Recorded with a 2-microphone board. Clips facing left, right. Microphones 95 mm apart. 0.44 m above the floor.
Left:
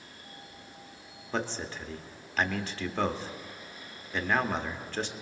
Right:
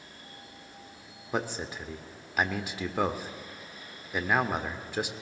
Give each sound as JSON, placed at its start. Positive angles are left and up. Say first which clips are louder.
{"t": 1.3, "sound": "a man speaking", "louder": "right 1 dB", "side_deg": -15, "distance_m": 0.8}